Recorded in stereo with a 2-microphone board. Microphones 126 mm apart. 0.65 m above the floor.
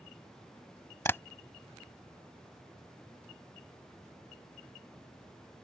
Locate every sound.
1.1 s tapping: 20° left (ahead or behind)